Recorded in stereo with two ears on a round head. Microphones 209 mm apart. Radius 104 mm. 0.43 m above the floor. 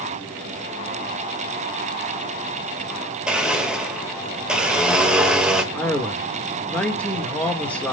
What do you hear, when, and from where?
3.3 s a blender: 5° right (ahead or behind), 1.7 m
5.7 s a man speaking: 5° left (ahead or behind), 1.4 m